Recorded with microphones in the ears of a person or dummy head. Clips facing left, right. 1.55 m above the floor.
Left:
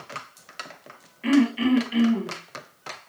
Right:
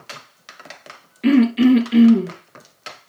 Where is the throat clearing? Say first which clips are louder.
Right 7 dB; 55° right (ahead or behind), 2 m.